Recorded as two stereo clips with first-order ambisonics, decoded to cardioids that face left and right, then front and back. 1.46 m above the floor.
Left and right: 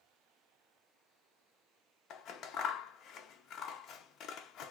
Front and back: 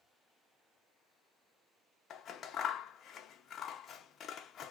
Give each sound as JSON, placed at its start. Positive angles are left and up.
{"t": 2.1, "sound": "scissors", "azimuth_deg": 55, "distance_m": 0.5}